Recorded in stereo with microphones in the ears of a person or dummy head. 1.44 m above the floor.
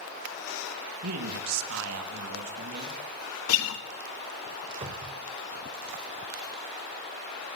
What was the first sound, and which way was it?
A man speaking, 85° right.